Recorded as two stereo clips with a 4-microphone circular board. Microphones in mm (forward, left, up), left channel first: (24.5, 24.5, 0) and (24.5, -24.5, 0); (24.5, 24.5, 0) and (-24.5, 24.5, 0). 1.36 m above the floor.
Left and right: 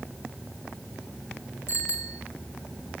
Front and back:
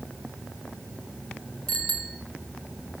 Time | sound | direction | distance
1.7 | a bicycle bell | 75° left | 4 m